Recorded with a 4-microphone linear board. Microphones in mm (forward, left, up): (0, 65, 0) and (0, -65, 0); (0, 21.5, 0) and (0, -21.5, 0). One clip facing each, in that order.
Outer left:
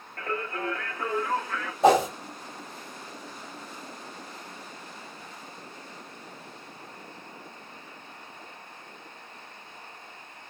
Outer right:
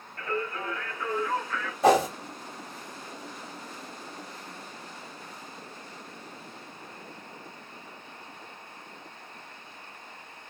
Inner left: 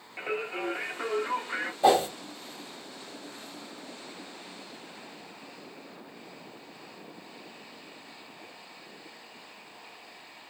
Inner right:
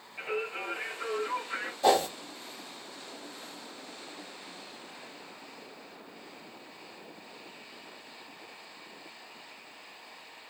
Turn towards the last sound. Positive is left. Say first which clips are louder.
# outer left 1 dB, inner left 2 dB
turn(degrees=25)  # may be behind; listen again after turning